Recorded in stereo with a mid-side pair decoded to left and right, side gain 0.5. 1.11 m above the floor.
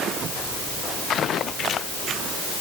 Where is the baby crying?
No baby crying in this recording.